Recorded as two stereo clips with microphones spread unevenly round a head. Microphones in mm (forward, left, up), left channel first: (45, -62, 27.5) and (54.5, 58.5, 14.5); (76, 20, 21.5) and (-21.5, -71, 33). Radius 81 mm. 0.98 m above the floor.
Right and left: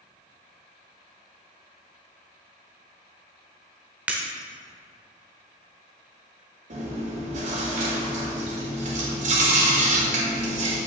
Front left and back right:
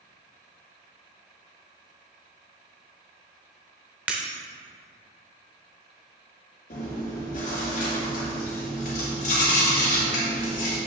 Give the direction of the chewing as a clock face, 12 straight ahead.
9 o'clock.